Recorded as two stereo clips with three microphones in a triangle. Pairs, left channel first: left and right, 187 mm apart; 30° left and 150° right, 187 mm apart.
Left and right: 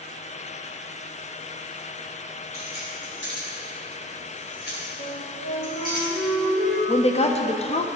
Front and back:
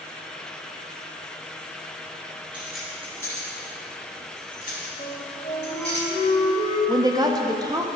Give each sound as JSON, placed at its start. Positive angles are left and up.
{"t": 2.5, "sound": "keys jangling", "azimuth_deg": 125, "distance_m": 2.5}
{"t": 5.0, "sound": "a flute", "azimuth_deg": 80, "distance_m": 2.5}
{"t": 6.9, "sound": "a woman speaking", "azimuth_deg": 145, "distance_m": 0.6}